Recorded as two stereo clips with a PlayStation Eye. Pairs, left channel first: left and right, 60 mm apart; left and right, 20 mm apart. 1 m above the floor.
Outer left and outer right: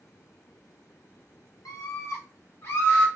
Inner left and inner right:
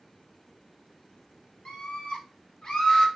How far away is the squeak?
No squeak in this recording.